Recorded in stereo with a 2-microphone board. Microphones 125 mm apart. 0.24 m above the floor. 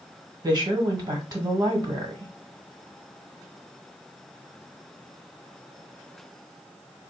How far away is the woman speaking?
About 1.4 m.